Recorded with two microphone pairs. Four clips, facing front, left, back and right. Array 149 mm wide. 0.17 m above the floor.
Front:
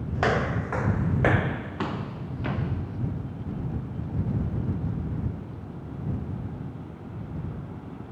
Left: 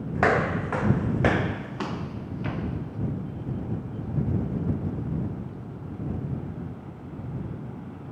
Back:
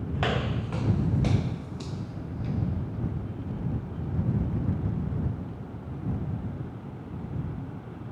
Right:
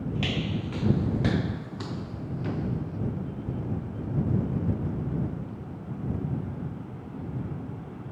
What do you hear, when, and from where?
0.1 s footsteps: 75° left; by 3.0 s 25° left